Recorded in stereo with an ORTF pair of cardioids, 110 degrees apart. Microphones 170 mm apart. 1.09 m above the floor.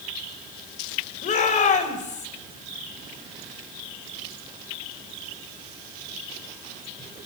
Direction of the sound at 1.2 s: 45° left.